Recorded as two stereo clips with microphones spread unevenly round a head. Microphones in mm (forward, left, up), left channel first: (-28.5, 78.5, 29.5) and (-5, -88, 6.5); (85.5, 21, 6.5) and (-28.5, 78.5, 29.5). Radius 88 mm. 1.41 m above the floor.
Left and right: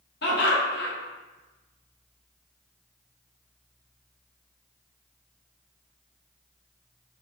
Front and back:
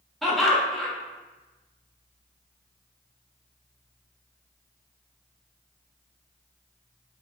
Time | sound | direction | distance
0.2 | laughter | 60° left | 1.1 m